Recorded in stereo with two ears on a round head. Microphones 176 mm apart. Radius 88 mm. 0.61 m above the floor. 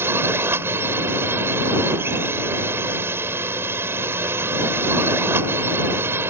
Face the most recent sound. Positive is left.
turn(degrees=-10)  # may be behind; listen again after turning